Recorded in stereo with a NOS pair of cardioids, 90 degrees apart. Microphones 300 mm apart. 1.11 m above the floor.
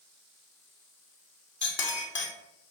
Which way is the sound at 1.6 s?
40° left.